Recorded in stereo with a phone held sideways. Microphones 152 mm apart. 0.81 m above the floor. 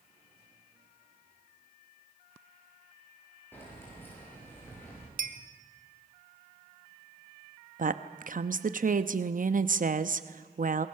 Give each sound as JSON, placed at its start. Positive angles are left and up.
{"t": 3.5, "sound": "keys jangling", "side_deg": 15, "distance_m": 9.5}
{"t": 5.2, "sound": "a clink", "side_deg": -75, "distance_m": 1.6}
{"t": 7.8, "sound": "a woman speaking", "side_deg": -65, "distance_m": 0.8}